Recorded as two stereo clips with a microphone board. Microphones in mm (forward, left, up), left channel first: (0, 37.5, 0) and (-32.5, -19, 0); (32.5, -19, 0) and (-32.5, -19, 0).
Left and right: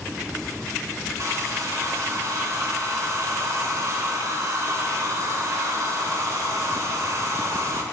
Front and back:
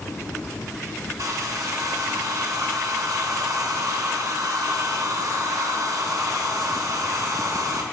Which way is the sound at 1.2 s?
155° right.